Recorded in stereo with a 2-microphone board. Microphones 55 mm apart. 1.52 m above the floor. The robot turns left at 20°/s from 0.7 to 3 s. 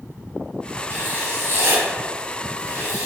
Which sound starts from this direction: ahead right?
Writing, at 0.9 s.